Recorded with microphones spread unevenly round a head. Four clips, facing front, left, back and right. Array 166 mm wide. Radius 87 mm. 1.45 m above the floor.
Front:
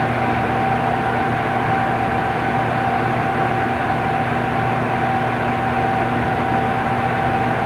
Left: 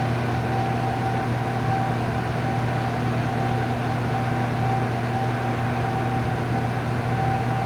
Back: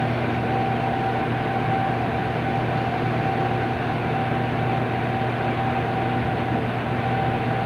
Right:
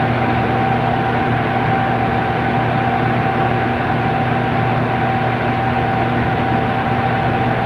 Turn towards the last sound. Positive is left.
No sound to turn to.